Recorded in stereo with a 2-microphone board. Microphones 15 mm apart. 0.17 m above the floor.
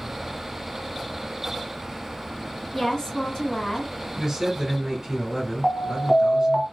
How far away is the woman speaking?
About 1.9 m.